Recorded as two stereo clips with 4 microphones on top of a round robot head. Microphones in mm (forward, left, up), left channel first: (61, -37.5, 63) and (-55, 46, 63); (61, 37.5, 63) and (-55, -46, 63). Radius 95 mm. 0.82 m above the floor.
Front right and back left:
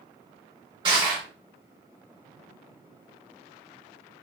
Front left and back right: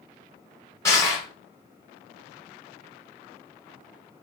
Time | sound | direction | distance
0.8 | crushing | 100° left | 0.6 m